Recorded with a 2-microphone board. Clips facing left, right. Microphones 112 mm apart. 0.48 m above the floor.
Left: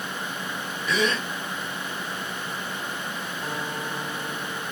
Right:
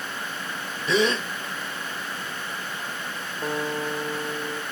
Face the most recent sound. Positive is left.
turn(degrees=-55)  # may be behind; listen again after turning